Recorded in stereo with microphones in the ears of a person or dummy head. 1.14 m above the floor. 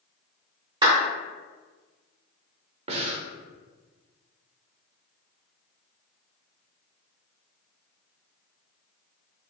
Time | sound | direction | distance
0.8 | a clap | 25° right (ahead or behind) | 0.9 m
2.9 | breathing | 35° right (ahead or behind) | 0.6 m